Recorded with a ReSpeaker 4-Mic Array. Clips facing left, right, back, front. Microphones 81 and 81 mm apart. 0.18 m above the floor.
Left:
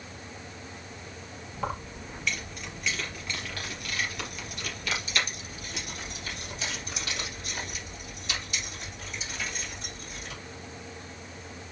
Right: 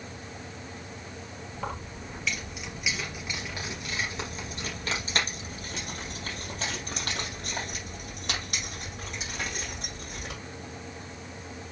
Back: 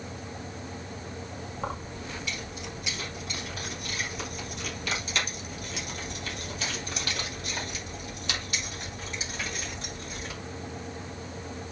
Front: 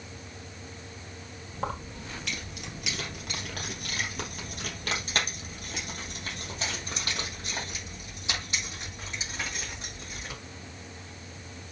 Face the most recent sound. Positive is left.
turn(degrees=-70)